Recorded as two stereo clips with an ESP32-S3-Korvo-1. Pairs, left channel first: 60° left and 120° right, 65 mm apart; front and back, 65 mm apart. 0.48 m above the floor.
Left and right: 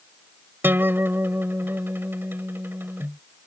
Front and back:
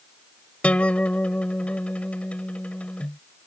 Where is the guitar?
65° right.